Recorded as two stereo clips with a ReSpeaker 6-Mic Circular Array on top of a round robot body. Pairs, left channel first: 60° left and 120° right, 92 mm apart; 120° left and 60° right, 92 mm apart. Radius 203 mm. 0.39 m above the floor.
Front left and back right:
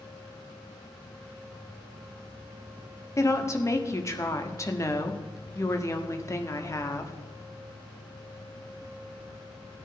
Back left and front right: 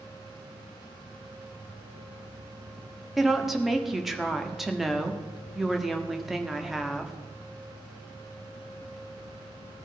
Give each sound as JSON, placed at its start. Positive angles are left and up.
{"t": 3.2, "sound": "a woman speaking", "azimuth_deg": 25, "distance_m": 1.7}